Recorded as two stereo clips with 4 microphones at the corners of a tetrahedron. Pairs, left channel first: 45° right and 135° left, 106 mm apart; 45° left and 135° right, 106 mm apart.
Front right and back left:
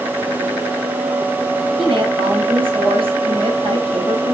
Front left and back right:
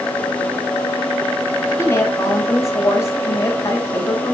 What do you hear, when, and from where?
1.8 s a woman speaking: 110° left, 3.5 m